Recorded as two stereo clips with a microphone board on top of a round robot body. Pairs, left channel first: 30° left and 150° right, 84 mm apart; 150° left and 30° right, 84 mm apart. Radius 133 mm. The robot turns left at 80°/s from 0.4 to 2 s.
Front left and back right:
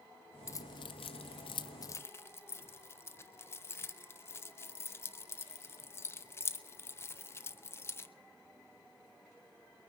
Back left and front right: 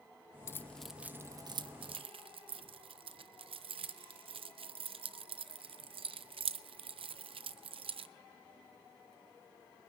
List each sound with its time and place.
0.5 s keys jangling: 90° left, 0.5 m; by 8.1 s 30° right, 0.5 m